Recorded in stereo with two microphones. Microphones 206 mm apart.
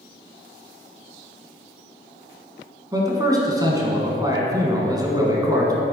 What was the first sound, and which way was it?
A man speaking, 20° right (ahead or behind).